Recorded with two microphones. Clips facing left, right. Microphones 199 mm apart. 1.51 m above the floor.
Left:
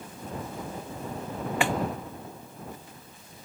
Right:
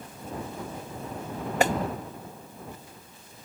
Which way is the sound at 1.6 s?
40° right (ahead or behind).